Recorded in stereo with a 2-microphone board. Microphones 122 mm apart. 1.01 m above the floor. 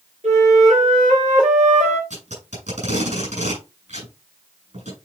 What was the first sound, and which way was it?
A flute, 80° right.